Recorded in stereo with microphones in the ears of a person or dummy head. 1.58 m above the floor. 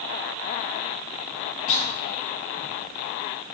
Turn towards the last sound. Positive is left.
turn(degrees=35)  # may be behind; listen again after turning